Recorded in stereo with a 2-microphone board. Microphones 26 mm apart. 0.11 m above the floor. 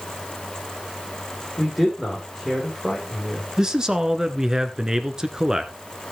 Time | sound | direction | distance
1.6 | a man speaking | 5° right (ahead or behind) | 6 m
3.6 | a man speaking | 25° right (ahead or behind) | 1.2 m